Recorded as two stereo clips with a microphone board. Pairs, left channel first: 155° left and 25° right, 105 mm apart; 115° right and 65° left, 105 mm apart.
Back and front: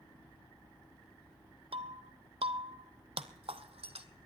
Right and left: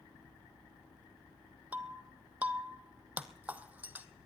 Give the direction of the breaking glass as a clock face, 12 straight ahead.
12 o'clock.